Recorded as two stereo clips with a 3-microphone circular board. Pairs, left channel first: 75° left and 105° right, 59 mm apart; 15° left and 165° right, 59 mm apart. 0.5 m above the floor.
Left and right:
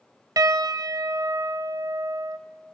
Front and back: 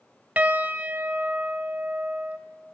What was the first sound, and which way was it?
A piano, 100° right.